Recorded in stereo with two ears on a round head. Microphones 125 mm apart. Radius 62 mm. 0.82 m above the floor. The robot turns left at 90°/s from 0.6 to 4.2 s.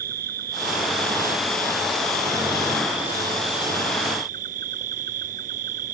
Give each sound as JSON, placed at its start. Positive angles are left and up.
{"t": 0.0, "sound": "an insect", "azimuth_deg": -105}